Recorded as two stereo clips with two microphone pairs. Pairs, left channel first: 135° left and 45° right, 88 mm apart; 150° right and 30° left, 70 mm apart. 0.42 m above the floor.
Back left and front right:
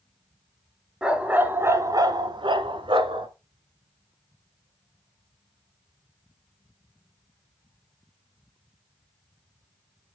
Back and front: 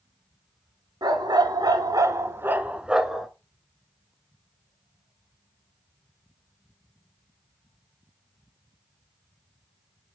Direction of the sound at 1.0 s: 35° left.